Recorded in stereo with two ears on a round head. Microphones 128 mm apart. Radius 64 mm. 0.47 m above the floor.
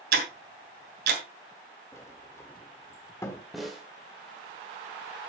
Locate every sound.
0.1 s ticking: 75° right (ahead or behind), 3 m
1.9 s a sliding door: 20° left (ahead or behind), 1.2 m
3.5 s a snare drum: centre (ahead or behind), 2.0 m